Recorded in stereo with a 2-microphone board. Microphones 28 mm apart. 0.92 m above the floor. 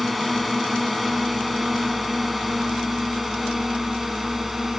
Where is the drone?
Centre (ahead or behind); by 4.8 s 10° right (ahead or behind).